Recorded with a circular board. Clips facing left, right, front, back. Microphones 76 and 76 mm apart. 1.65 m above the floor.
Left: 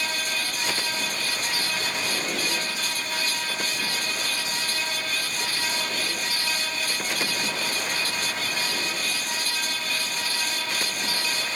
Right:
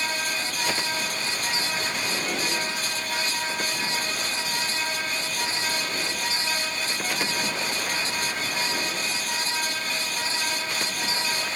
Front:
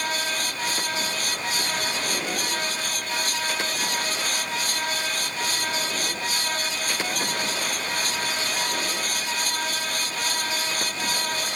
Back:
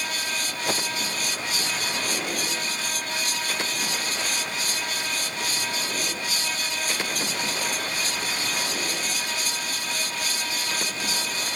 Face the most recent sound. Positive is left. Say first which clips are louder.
# right 3 dB, back 5 dB
turn(degrees=-165)